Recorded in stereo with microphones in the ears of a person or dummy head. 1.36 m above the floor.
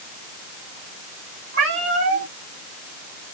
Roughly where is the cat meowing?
Right.